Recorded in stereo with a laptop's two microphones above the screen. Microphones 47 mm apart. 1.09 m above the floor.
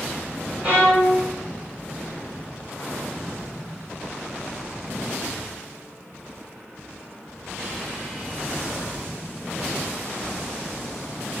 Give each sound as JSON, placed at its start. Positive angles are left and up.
{"t": 0.6, "sound": "a violin", "side_deg": -35, "distance_m": 0.9}